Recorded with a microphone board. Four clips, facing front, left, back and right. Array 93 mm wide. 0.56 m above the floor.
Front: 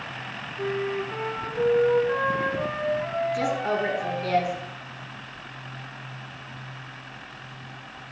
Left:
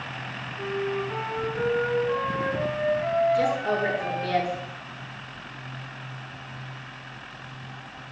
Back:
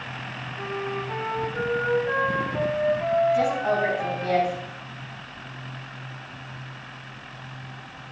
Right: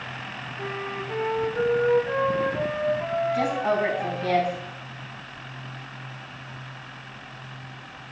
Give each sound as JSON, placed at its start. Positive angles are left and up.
{"t": 0.6, "sound": "a flute", "azimuth_deg": -160, "distance_m": 3.0}
{"t": 3.3, "sound": "a woman speaking", "azimuth_deg": -120, "distance_m": 4.0}